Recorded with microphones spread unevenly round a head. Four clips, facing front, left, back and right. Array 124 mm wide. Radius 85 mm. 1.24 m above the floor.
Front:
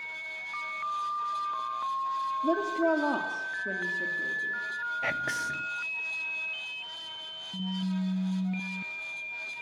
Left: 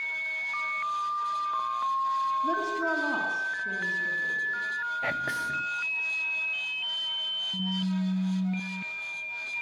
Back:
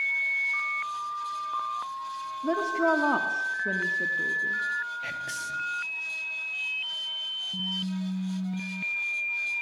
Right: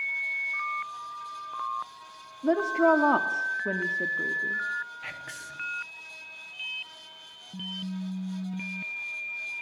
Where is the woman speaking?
60° right, 2.5 m; by 4.6 s 90° right, 3 m.